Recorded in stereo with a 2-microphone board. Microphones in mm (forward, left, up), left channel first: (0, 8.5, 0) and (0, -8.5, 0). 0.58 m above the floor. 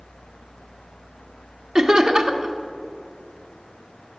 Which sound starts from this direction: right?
Laughter, at 1.8 s.